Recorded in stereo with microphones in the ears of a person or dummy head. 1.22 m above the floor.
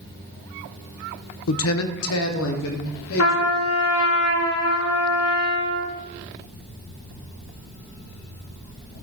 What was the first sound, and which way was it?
A man speaking, 60° left (ahead or behind).